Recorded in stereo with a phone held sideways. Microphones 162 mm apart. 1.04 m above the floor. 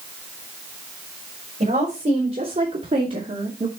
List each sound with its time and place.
1.6 s a woman speaking: 55° right (ahead or behind), 4 m